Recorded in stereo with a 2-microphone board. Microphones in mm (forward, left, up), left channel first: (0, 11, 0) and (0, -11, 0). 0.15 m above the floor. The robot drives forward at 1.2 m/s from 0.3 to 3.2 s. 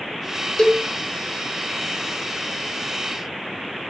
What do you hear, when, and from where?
0.6 s a cowbell: 30° left (ahead or behind), 1.4 m